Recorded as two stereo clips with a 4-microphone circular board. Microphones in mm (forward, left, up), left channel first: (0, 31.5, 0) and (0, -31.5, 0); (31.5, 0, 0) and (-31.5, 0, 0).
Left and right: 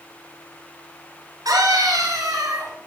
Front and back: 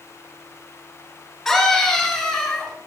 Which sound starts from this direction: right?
A scream, at 1.4 s.